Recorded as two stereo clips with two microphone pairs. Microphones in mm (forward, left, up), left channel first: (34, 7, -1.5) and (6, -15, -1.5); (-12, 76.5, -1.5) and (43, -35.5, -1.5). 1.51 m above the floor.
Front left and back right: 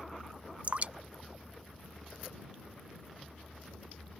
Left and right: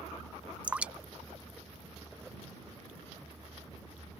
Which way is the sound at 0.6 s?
140° right.